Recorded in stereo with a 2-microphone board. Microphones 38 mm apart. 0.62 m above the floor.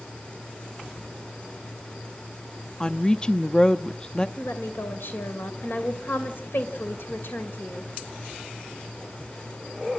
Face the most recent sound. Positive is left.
turn(degrees=75)  # may be behind; listen again after turning